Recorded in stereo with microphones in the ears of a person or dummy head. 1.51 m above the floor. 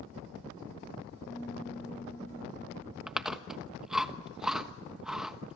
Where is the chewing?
5° right (ahead or behind), 1.2 m.